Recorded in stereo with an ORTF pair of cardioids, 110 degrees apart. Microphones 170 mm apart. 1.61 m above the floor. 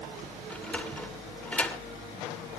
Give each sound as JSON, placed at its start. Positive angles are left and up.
{"t": 0.5, "sound": "a sliding door", "azimuth_deg": 10, "distance_m": 2.5}